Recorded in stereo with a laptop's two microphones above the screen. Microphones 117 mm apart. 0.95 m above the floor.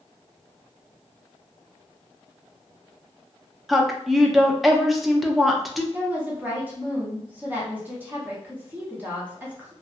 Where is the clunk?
I don't hear a clunk.